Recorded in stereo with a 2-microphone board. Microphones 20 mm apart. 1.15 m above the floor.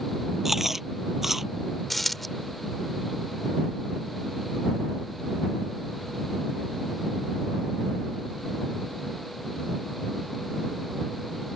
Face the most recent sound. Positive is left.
turn(degrees=10)  # may be behind; listen again after turning